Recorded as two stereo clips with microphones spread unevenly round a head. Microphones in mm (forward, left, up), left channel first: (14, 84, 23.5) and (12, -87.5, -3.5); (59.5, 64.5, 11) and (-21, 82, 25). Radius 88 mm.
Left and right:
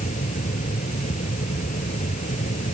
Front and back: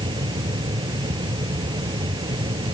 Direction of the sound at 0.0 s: 140° left.